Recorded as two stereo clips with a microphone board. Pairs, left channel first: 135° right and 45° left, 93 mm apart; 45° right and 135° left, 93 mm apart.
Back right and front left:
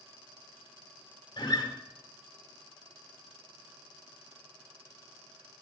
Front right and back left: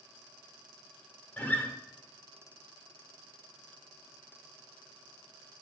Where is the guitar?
110° right, 2 m.